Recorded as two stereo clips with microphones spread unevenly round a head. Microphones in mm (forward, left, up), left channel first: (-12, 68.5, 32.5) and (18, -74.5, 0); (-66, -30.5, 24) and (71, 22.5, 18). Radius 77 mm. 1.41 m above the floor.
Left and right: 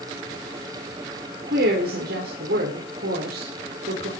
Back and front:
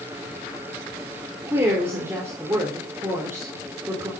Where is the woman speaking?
55° right, 4.5 m.